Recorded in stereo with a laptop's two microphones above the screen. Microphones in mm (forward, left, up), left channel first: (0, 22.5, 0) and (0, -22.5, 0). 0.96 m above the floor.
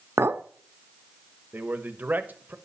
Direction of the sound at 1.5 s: 45° right (ahead or behind).